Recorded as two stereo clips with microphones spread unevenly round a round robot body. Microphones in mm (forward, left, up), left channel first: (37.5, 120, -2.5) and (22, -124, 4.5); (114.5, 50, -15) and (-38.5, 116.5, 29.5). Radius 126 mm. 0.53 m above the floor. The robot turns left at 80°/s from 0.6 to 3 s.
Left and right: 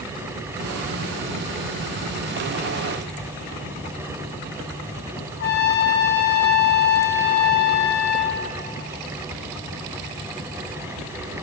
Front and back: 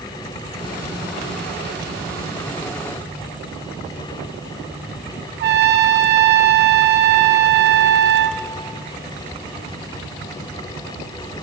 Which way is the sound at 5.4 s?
135° left.